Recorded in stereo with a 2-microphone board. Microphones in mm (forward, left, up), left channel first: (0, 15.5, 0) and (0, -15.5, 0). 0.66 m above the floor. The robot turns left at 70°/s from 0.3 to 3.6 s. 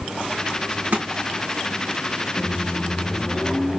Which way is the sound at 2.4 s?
75° left.